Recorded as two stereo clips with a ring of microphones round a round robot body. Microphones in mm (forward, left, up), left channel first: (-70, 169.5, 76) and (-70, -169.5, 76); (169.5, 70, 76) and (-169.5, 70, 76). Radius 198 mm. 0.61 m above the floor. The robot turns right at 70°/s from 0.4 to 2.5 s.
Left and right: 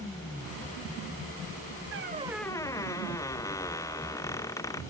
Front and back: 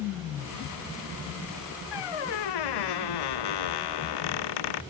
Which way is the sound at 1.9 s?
35° right.